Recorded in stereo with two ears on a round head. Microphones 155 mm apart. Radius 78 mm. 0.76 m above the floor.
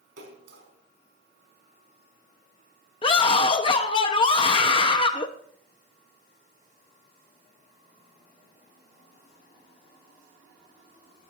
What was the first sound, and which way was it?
A splash, 75° right (ahead or behind).